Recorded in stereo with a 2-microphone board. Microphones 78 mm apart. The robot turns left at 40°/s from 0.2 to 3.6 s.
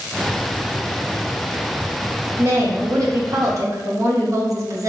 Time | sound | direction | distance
2.4 | a woman speaking | 50° right | 0.7 m